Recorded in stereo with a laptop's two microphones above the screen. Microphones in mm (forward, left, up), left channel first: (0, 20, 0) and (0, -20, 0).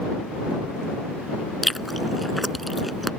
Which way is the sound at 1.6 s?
Centre (ahead or behind).